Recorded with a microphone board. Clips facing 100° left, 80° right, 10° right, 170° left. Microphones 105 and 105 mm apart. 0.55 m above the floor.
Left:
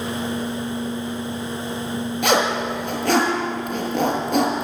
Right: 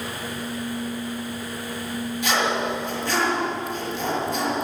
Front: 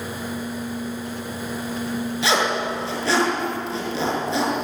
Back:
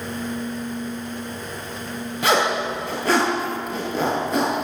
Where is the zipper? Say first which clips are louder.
Left 4 dB, back 3 dB; 130° left, 6.5 m.